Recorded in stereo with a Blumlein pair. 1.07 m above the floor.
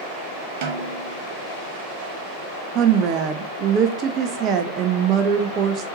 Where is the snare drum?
50° right, 1.0 m.